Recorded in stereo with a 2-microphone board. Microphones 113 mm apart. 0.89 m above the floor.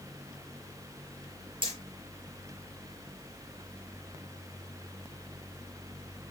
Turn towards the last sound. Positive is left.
turn(degrees=-50)  # may be behind; listen again after turning